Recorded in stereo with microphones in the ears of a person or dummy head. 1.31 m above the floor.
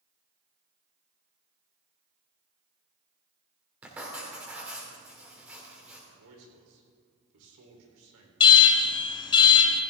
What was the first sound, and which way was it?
Writing, 5° right (ahead or behind).